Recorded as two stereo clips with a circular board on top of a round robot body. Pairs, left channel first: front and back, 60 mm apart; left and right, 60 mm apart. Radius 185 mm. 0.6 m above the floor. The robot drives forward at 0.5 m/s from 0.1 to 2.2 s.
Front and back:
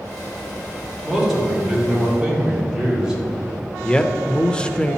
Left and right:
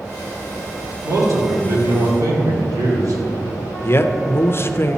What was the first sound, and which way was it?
A man speaking, 90° right.